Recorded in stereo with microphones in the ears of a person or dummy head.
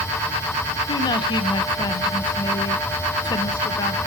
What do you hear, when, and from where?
0.9 s a woman speaking: 25° left (ahead or behind), 0.8 m